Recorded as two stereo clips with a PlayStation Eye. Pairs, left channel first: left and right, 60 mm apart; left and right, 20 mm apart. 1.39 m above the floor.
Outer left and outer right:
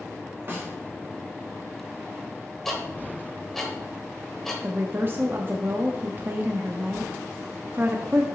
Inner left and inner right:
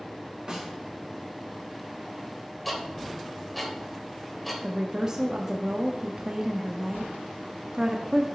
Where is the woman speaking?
35° right (ahead or behind), 0.6 m.